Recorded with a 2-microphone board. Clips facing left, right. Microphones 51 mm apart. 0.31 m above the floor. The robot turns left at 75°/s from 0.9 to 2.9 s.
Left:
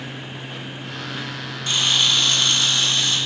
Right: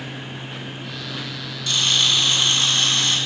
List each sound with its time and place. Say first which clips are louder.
1.7 s a camera shutter: even; 35° left, 1.9 m; by 3.2 s 60° right, 1.9 m